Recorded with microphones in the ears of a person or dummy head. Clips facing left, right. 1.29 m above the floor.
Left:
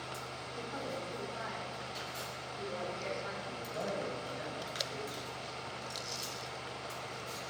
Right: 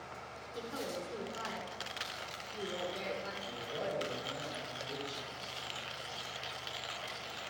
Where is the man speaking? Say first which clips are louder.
Even; 60° right (ahead or behind), 6.5 m.